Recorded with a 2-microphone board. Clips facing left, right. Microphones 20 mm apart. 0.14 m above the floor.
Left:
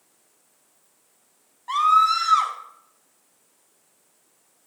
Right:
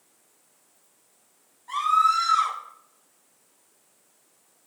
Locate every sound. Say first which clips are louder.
1.7 s a scream: left 3 dB; 35° left (ahead or behind), 5.5 m